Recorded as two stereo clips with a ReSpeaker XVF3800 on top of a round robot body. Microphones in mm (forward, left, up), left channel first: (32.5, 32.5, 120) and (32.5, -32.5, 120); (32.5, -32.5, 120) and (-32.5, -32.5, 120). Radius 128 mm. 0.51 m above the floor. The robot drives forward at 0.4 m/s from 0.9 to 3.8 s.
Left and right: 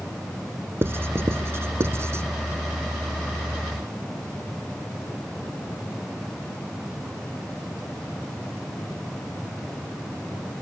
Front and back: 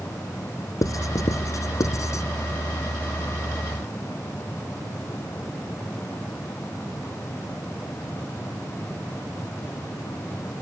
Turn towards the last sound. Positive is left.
turn(degrees=-45)